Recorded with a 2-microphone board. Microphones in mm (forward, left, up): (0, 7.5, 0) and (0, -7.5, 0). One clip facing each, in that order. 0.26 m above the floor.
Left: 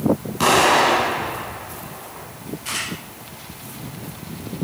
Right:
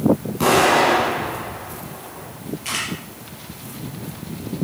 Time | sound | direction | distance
0.4 | an explosion | 20° left (ahead or behind) | 2.5 m
2.6 | a camera shutter | 30° right (ahead or behind) | 4.5 m